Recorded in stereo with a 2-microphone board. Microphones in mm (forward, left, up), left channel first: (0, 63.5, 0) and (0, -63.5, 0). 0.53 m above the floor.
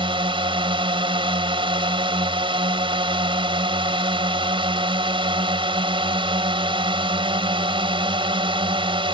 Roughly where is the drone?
Right.